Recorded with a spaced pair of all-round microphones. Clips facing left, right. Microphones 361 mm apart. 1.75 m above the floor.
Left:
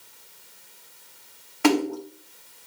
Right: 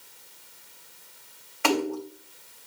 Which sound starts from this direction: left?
A splash, at 1.6 s.